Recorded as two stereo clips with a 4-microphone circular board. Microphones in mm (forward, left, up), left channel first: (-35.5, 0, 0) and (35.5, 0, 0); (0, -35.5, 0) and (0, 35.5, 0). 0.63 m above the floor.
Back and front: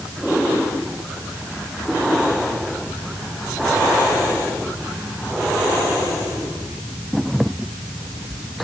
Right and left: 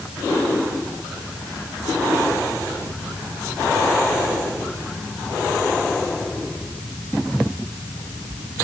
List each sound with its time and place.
Only background noise.